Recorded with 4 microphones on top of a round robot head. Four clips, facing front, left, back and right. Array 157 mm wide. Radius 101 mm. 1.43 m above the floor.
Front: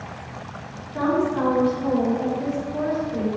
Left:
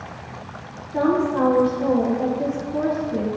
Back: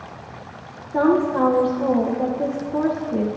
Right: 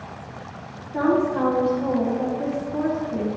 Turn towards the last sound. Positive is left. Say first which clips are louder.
# left 1 dB, back 4 dB
turn(degrees=170)